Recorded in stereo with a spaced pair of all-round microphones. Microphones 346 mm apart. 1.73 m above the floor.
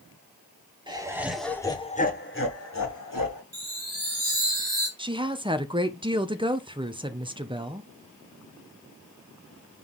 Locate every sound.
0.9 s laughter: 15° right (ahead or behind), 1.8 m; by 3.4 s 70° left (ahead or behind), 1.7 m
3.5 s a chime: 45° right (ahead or behind), 2.5 m
5.0 s a woman speaking: 15° right (ahead or behind), 0.8 m